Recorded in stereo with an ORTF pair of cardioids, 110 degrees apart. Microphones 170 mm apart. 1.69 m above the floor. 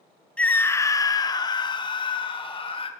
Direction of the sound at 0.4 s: 5° left.